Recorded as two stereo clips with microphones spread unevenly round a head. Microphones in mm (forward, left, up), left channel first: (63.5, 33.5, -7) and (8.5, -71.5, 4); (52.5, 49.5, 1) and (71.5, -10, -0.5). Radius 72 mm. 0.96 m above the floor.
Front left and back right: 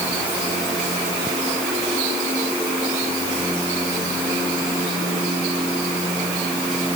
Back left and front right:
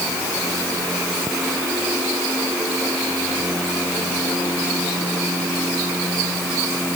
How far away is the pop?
No pop in this recording.